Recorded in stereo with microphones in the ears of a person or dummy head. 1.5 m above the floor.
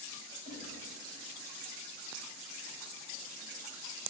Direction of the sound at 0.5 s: 45° right (ahead or behind).